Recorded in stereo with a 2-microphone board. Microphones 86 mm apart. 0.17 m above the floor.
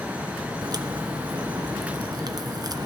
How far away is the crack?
About 1.1 m.